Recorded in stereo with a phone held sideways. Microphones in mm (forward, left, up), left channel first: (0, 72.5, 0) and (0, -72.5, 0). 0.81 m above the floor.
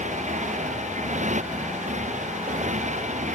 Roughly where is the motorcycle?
Right.